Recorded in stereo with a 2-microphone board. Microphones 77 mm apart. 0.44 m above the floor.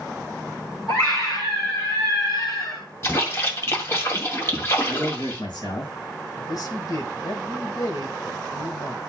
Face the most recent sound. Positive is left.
turn(degrees=55)  # may be behind; listen again after turning